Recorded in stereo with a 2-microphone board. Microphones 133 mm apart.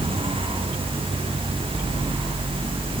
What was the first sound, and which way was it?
Only background noise.